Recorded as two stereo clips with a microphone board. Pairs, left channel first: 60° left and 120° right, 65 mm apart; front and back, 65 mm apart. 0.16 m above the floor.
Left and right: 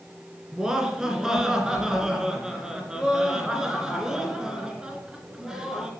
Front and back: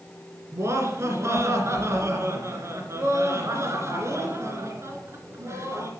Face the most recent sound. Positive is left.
turn(degrees=160)